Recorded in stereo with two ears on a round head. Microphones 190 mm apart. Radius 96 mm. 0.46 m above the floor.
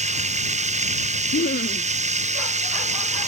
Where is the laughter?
40° left (ahead or behind).